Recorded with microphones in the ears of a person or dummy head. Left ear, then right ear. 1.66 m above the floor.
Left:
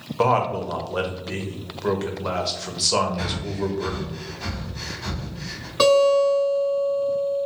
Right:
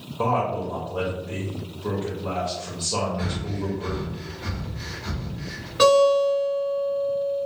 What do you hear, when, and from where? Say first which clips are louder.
0.2 s a man speaking: left 3 dB; 65° left (ahead or behind), 0.7 m
3.2 s breathing: left 3 dB; 75° left (ahead or behind), 0.8 m
5.8 s a guitar: even; 5° left (ahead or behind), 1.9 m